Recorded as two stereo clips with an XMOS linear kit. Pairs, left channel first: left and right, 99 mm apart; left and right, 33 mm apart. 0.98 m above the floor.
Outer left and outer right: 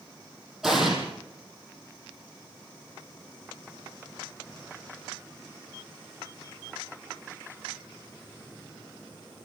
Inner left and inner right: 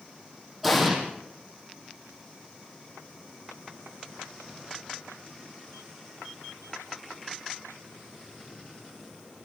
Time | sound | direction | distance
0.6 | an explosion | 5° right (ahead or behind) | 5 m